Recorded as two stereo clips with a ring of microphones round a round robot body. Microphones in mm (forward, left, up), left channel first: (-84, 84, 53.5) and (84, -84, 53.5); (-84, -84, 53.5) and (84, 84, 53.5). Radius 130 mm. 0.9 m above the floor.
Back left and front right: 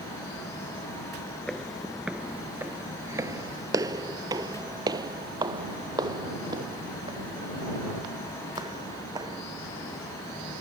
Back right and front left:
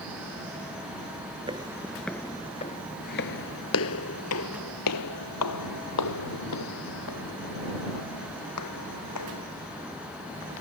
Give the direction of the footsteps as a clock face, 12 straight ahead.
10 o'clock.